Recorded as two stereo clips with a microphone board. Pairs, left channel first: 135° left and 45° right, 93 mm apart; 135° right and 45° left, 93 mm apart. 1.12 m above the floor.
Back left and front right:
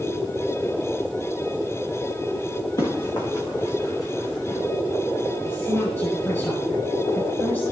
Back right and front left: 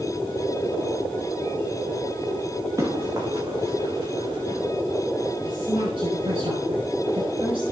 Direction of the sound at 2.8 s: 100° left.